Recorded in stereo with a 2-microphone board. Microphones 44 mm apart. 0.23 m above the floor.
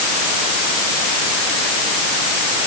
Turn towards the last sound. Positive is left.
No sound to turn to.